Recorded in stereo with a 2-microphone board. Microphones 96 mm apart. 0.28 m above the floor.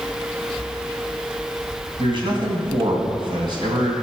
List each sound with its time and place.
2.0 s a man speaking: 60° right (ahead or behind), 2 m